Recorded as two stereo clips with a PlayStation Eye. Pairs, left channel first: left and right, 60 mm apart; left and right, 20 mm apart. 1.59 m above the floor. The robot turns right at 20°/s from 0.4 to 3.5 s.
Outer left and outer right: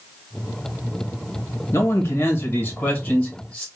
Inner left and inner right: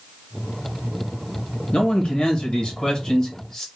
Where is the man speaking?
120° left, 1.4 m; by 3.7 s 155° left, 1.4 m.